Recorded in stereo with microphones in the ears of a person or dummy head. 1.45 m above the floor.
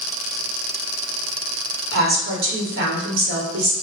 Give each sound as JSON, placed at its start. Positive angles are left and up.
{"t": 1.9, "sound": "a woman speaking", "side_deg": -65, "distance_m": 0.9}